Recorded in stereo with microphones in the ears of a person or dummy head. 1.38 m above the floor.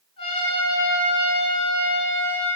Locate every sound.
0.2 s a trumpet: 25° left (ahead or behind), 7 m